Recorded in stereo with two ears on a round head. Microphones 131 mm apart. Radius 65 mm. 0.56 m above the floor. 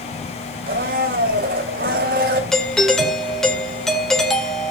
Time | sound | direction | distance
0.7 | a blender | 70° right (ahead or behind) | 2.5 m
2.5 | a doorbell | centre (ahead or behind) | 2.5 m